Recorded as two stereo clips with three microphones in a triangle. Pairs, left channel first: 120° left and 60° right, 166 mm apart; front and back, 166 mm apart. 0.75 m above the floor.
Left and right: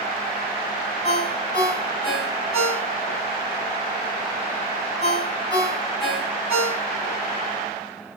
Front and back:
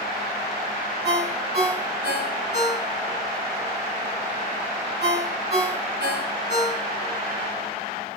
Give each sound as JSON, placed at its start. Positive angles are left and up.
{"t": 1.0, "sound": "a ringtone", "azimuth_deg": -175, "distance_m": 3.0}